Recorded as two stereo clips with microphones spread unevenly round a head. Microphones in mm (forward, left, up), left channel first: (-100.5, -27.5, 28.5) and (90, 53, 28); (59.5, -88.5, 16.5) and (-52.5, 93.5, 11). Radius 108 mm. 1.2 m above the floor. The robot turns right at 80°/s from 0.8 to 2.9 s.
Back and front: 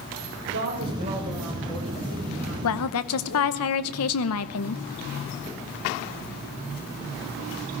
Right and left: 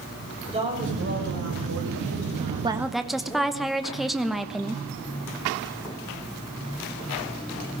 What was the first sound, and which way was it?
A woman speaking, 55° left.